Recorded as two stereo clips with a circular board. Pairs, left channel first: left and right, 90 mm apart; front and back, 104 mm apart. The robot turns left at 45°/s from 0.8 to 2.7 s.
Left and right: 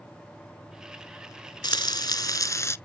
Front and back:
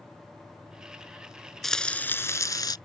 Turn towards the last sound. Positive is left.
turn(degrees=40)